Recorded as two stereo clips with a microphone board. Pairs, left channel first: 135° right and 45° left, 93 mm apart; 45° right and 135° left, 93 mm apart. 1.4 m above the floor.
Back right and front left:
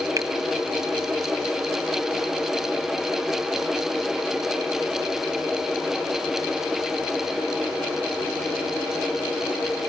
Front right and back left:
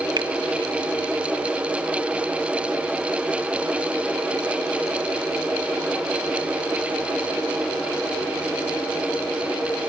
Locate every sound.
0.2 s a finger snap: 95° left, 1.2 m